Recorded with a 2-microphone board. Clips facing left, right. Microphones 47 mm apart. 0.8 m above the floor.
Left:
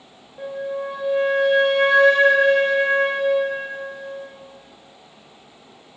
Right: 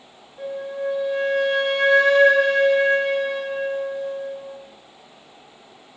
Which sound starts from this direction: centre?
A flute, at 0.4 s.